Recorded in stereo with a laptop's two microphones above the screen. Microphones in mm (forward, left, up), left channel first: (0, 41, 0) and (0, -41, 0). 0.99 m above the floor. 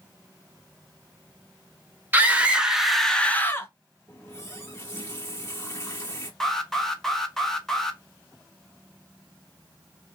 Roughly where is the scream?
Right.